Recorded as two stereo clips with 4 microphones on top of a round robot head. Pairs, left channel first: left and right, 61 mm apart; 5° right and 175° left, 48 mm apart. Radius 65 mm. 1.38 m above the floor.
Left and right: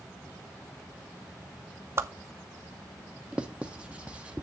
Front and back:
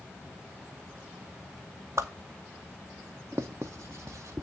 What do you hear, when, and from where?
2.0 s a whoosh: 130° right, 0.5 m
3.3 s writing: 150° right, 0.5 m